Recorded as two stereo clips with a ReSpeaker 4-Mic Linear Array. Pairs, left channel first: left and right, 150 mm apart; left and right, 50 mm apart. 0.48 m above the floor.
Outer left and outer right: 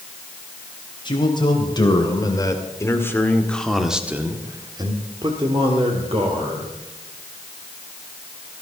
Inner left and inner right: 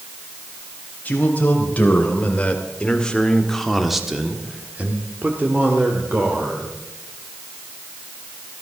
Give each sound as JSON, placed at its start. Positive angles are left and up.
{"t": 1.1, "sound": "a man speaking", "side_deg": 30, "distance_m": 3.0}